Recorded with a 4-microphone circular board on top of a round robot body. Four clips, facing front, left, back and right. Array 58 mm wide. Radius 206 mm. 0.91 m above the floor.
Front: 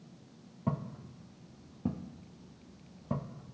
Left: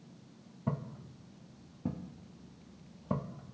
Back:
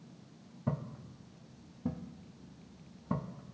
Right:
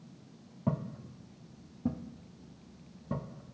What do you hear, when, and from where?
0.7 s footsteps: 60° right, 1.2 m; by 3.5 s 95° left, 1.4 m